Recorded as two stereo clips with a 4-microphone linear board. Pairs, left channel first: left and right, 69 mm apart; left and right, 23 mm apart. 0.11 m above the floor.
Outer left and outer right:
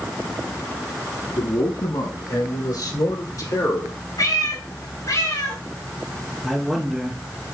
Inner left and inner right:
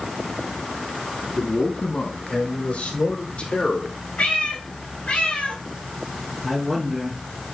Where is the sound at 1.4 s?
70° left (ahead or behind), 3.5 m; by 4.0 s 50° left (ahead or behind), 2 m.